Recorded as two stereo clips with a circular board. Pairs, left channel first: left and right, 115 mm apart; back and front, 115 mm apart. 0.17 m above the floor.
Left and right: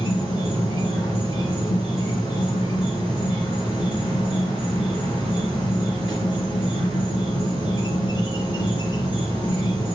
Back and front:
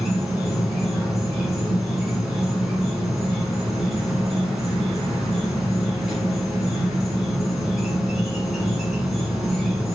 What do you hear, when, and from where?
0.0 s an insect: 90° left, 1.5 m